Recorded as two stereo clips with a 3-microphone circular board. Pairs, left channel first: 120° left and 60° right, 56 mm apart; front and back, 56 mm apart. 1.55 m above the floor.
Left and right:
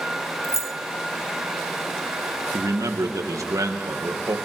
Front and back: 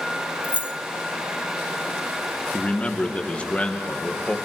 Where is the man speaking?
70° right, 2 m.